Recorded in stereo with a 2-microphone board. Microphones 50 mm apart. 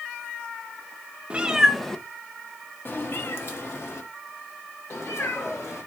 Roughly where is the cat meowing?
Right.